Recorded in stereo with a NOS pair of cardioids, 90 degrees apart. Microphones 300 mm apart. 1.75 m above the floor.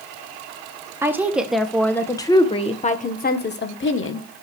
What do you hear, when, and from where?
1.0 s a woman speaking: 10° right, 1.9 m; by 4.3 s 45° left, 1.9 m